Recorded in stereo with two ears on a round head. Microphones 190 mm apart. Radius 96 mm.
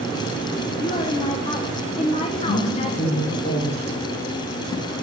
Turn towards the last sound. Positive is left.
turn(degrees=35)  # may be behind; listen again after turning